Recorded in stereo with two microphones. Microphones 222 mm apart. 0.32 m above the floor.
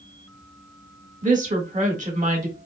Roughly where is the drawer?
No drawer in this recording.